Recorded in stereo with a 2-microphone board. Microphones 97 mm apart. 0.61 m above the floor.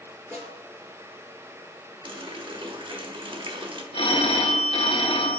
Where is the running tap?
60° right (ahead or behind), 0.9 m.